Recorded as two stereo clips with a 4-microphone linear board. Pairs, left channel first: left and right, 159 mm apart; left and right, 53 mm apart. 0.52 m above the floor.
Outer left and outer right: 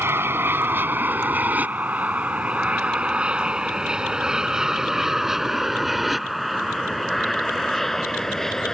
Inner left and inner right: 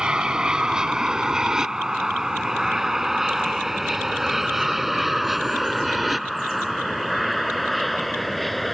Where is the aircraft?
15° right (ahead or behind); by 8.7 s centre (ahead or behind).